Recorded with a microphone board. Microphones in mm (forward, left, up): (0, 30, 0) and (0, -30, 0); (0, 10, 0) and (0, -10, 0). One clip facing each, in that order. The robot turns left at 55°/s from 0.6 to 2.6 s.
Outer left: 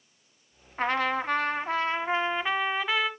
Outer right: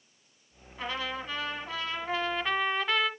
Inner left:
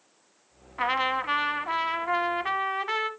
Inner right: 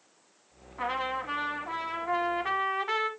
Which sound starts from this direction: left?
A trumpet, at 0.8 s.